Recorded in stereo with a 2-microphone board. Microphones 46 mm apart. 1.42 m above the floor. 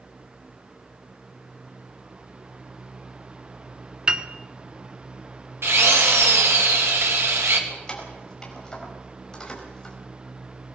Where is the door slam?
I don't hear a door slam.